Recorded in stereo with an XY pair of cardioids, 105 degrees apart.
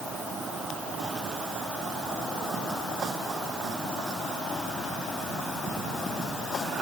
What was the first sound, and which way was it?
Only background noise.